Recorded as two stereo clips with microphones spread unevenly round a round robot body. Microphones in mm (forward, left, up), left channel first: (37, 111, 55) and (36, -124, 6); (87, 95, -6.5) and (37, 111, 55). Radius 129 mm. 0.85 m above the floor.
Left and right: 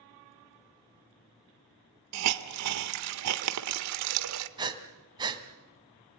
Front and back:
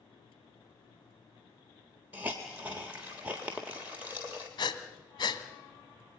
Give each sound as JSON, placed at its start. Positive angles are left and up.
{"t": 2.1, "sound": "a hiss", "azimuth_deg": -125, "distance_m": 1.2}
{"t": 4.6, "sound": "breathing", "azimuth_deg": -15, "distance_m": 2.0}